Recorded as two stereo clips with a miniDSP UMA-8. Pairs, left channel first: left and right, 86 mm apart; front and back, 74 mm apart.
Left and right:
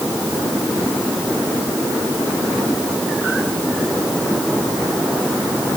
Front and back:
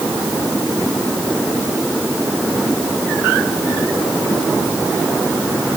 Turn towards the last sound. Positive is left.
No sound to turn to.